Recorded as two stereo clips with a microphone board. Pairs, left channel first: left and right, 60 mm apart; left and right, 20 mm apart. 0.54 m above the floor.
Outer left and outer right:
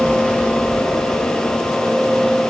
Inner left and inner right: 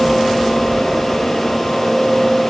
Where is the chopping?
I don't hear chopping.